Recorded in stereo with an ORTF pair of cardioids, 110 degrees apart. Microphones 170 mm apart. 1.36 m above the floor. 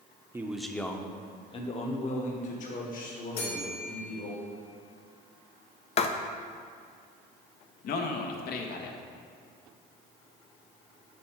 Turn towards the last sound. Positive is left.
turn(degrees=65)